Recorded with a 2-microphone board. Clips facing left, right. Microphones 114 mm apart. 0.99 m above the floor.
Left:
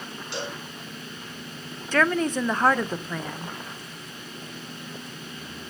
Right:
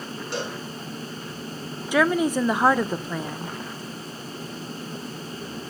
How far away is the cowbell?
About 4.5 m.